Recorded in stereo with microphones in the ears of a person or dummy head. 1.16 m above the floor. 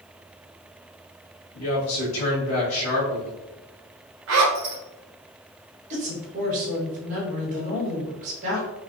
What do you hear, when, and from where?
1.5 s a woman speaking: 75° left (ahead or behind), 1.7 m
4.3 s a zipper: 65° right (ahead or behind), 1.6 m
5.9 s a woman speaking: 45° right (ahead or behind), 1.8 m